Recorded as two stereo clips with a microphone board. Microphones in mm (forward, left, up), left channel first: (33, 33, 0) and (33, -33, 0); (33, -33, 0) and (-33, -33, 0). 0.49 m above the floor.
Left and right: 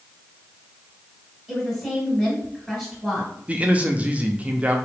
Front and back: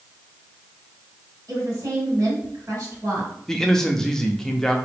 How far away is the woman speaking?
About 2.5 m.